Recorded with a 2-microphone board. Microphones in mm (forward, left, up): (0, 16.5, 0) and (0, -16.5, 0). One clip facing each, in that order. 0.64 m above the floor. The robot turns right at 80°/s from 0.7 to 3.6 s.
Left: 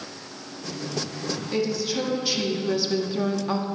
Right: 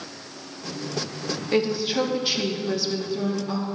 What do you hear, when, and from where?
1.5 s a woman speaking: 90° right, 1.0 m; by 3.6 s 75° left, 1.0 m